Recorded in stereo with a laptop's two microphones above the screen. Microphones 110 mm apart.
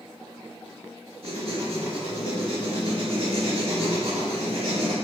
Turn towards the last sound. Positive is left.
turn(degrees=-55)  # may be behind; listen again after turning